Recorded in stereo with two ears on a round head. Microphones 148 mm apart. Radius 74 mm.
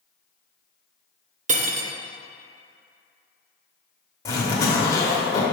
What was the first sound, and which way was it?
Cutlery clinking, 50° right (ahead or behind).